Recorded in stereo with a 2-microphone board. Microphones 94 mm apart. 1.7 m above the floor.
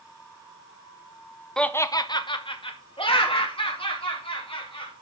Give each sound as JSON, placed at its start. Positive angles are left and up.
{"t": 1.6, "sound": "laughter", "side_deg": 5, "distance_m": 0.7}